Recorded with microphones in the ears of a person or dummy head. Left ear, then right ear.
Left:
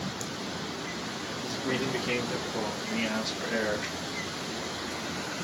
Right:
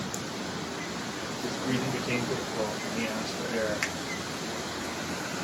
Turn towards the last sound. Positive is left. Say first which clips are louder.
# right 4 dB
turn(degrees=-55)  # may be behind; listen again after turning